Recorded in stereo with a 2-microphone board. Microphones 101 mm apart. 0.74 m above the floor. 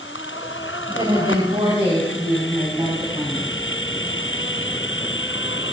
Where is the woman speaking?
60° right (ahead or behind), 3 m.